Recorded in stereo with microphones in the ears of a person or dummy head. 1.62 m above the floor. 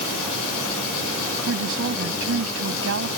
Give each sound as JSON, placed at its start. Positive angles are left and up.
{"t": 1.5, "sound": "a woman speaking", "side_deg": -75}